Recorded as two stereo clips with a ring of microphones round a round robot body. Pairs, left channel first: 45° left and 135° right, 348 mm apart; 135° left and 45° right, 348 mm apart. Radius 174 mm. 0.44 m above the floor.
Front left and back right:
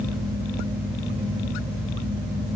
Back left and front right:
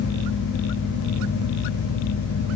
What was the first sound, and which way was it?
Only background noise.